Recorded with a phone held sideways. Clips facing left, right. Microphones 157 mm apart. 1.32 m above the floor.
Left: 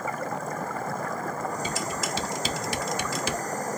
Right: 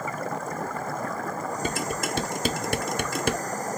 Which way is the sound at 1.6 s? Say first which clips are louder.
Right 2 dB; 55° right (ahead or behind).